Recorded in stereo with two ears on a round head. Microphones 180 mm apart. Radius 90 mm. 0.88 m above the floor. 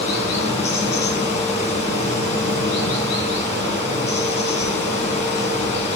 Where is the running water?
30° left (ahead or behind), 2.5 m.